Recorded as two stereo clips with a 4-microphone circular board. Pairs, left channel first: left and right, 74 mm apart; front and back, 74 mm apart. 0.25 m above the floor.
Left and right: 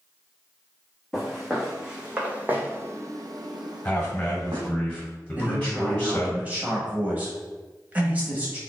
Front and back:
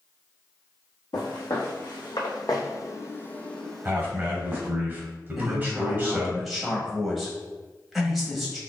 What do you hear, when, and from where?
1.1 s footsteps: straight ahead, 1.5 m; by 4.7 s 115° right, 1.1 m
3.9 s a man speaking: 145° left, 1.2 m
5.4 s a man speaking: 90° right, 0.9 m